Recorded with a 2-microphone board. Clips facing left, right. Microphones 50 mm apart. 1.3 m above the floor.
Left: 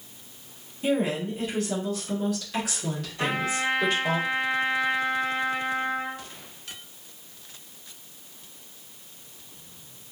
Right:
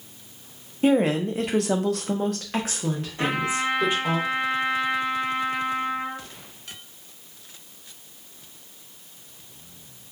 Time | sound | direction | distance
0.8 | a woman speaking | 50° right (ahead or behind) | 0.7 m
3.2 | a trumpet | 30° right (ahead or behind) | 1.5 m